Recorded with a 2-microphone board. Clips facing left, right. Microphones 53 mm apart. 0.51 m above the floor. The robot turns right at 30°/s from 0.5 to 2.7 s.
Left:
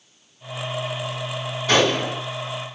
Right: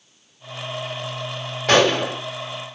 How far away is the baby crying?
I don't hear a baby crying.